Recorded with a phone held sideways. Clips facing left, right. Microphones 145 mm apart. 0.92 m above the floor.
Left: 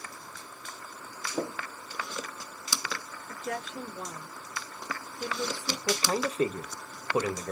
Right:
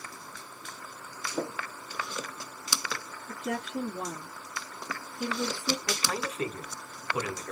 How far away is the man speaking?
About 0.7 m.